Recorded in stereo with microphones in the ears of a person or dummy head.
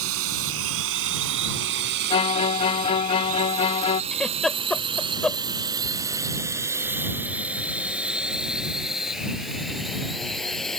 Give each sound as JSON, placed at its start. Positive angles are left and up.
{"t": 0.0, "sound": "a drone", "side_deg": -75}
{"t": 2.1, "sound": "a violin", "side_deg": 30}
{"t": 4.1, "sound": "a giggle", "side_deg": 0}